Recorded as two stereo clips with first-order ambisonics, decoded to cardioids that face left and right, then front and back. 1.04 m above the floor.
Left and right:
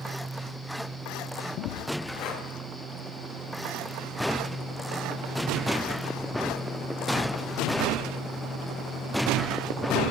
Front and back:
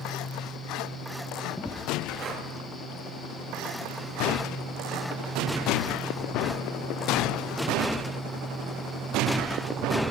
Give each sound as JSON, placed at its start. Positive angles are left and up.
{"t": 2.2, "sound": "breathing", "azimuth_deg": 125, "distance_m": 1.9}